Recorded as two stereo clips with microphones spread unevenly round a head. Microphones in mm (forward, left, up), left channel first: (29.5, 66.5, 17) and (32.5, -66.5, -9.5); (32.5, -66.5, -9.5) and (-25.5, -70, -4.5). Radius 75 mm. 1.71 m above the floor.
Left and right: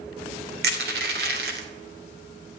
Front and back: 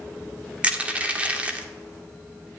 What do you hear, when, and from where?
0.6 s crushing: 115° right, 2.5 m